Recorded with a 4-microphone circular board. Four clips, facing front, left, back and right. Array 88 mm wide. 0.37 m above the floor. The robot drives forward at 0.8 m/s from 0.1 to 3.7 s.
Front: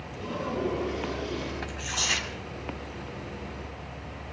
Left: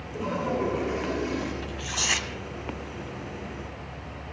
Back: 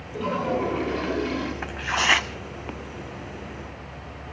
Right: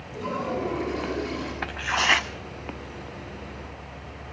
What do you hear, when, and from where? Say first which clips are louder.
0.1 s a toilet flushing: left 1 dB, back 7 dB; 155° left, 8.5 m
1.6 s tearing paper: right 7 dB, back 9 dB; 115° right, 0.5 m; by 2.3 s 150° right, 0.9 m